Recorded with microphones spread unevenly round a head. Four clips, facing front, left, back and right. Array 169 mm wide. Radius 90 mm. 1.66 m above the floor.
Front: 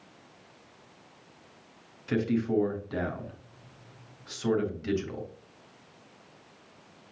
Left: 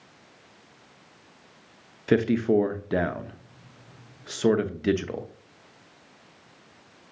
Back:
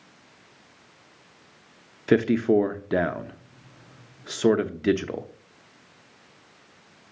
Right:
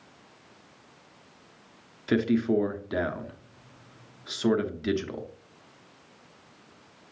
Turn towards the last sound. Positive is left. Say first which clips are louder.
# left 3 dB, back 8 dB
turn(degrees=165)